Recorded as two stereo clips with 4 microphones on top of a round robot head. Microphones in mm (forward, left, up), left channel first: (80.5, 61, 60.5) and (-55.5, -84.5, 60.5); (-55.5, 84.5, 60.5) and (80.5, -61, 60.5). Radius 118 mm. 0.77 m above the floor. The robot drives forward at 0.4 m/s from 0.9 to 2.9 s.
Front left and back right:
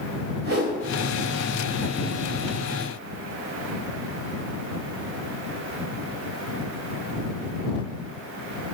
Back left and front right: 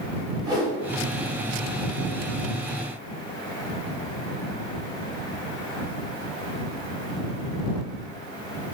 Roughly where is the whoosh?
Right.